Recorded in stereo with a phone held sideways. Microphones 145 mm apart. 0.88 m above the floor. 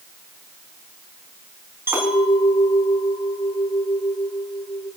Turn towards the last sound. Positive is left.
turn(degrees=-15)  # may be behind; listen again after turning